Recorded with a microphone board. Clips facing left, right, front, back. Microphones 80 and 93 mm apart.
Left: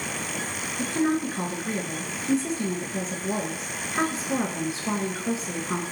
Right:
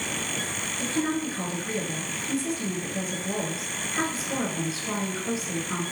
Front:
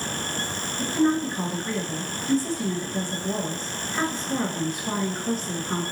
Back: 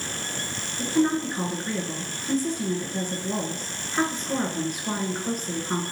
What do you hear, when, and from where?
0.8 s a woman speaking: 115° left, 1.2 m